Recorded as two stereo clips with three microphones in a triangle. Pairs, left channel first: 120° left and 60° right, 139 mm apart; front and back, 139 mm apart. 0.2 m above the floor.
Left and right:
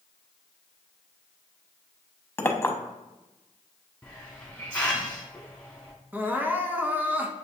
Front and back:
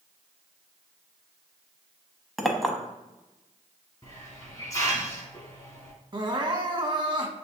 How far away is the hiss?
About 1.6 m.